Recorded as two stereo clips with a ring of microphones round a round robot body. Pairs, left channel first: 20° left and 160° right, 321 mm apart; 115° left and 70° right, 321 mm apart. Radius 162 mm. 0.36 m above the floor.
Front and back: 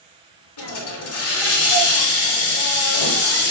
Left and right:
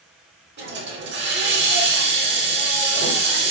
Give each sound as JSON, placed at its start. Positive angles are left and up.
{"t": 0.6, "sound": "a hiss", "azimuth_deg": -15, "distance_m": 0.9}